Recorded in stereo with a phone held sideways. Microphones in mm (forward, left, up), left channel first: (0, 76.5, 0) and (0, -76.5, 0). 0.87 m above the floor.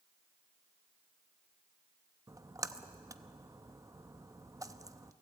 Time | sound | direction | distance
2.3 | a splash | 20° right (ahead or behind) | 0.6 m